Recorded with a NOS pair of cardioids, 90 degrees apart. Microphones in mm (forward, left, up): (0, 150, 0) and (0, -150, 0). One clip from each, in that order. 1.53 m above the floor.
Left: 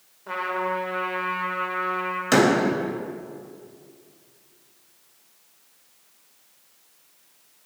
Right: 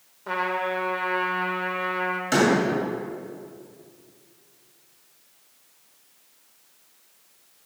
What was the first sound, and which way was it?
A trumpet, 30° right.